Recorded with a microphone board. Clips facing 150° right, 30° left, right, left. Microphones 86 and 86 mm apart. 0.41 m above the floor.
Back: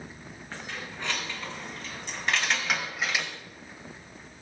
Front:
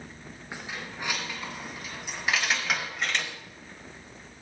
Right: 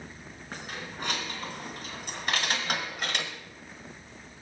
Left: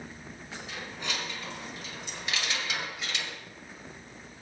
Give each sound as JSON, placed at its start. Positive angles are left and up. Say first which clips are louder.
{"t": 0.5, "sound": "keys jangling", "louder": "front 1 dB, right 2 dB", "azimuth_deg": -45, "distance_m": 4.0}